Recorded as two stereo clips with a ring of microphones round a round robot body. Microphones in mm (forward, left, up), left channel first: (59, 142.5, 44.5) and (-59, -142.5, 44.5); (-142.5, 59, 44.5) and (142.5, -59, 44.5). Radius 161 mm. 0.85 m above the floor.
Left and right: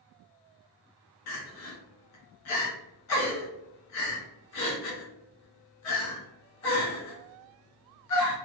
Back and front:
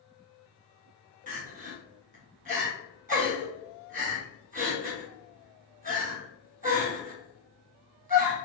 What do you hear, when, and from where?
1.3 s crying: 40° left, 1.3 m